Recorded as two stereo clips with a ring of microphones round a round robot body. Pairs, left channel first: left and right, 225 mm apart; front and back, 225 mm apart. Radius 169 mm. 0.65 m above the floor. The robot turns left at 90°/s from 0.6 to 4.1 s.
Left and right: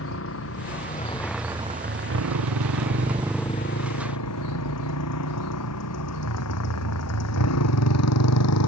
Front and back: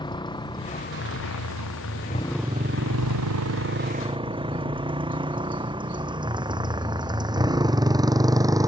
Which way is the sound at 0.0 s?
70° left.